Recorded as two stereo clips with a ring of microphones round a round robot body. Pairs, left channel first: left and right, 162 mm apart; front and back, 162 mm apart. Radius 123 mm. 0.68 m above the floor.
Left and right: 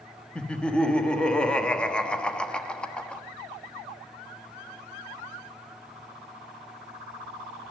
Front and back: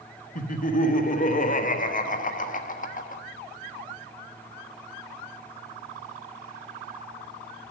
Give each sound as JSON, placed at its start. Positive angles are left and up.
{"t": 0.3, "sound": "laughter", "azimuth_deg": 5, "distance_m": 1.3}